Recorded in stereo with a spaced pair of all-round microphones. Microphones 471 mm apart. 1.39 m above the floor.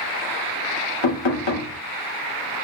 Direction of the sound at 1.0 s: 65° left (ahead or behind).